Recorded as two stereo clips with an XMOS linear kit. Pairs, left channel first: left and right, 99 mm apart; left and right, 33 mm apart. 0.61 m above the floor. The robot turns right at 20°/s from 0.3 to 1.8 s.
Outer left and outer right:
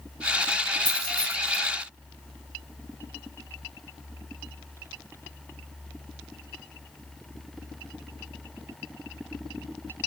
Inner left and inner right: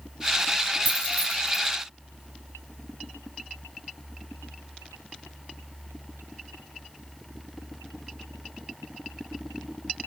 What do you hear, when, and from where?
0.8 s keys jangling: 60° right (ahead or behind), 1.8 m; by 1.6 s 70° right (ahead or behind), 1.8 m